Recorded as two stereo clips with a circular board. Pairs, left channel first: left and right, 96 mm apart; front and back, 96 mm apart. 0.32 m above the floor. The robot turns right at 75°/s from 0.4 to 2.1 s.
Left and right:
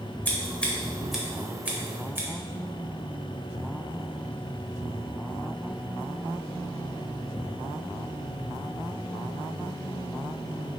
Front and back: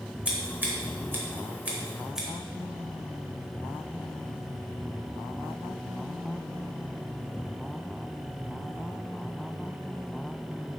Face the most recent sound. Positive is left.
turn(degrees=-100)